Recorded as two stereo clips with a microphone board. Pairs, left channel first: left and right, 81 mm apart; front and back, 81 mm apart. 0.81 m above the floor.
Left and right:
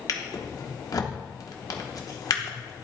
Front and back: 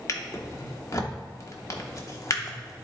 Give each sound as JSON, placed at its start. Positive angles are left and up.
{"t": 0.1, "sound": "a drawer", "azimuth_deg": 45, "distance_m": 0.9}